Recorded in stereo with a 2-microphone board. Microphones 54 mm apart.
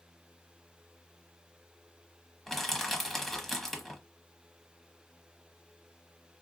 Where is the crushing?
5° left (ahead or behind), 1.0 m.